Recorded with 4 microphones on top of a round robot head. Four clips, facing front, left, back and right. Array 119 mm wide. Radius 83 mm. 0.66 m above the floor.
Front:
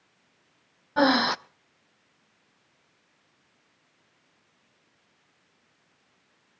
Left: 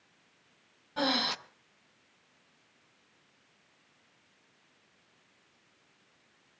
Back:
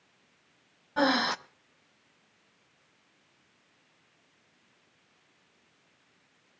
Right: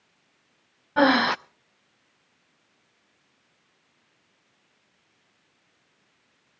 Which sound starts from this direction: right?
Breathing, at 1.0 s.